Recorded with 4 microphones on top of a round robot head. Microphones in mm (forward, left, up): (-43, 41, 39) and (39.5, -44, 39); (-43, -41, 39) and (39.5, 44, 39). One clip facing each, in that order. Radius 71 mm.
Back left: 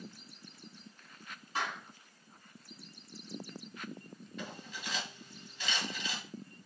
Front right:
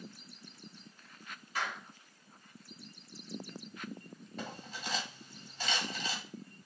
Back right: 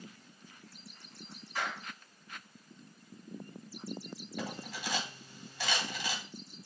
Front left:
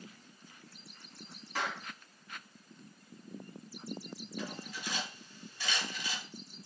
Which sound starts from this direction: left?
A clap, at 1.6 s.